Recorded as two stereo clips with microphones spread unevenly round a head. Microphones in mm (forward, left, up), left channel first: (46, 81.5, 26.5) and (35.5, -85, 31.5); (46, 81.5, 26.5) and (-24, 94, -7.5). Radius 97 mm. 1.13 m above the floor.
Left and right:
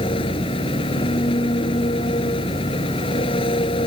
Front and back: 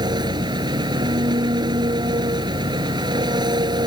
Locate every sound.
0.0 s an engine running: 150° left